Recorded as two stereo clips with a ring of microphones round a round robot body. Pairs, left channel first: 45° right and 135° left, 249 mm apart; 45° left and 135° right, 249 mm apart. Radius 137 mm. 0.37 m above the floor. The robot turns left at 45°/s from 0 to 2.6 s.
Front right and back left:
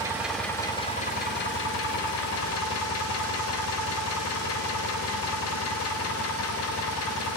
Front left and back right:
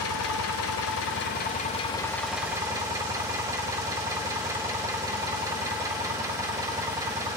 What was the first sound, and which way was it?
An engine running, 60° left.